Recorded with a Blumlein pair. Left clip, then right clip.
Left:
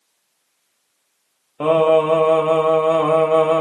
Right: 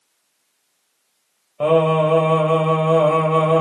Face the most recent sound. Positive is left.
turn(degrees=5)